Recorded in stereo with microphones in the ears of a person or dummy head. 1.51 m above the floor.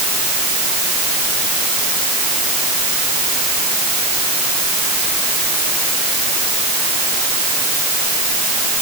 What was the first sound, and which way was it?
Only background noise.